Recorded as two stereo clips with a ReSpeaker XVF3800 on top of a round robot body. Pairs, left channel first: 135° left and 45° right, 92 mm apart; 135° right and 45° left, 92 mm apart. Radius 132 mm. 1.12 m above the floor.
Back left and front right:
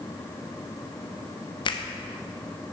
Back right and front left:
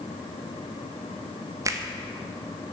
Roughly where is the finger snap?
Left.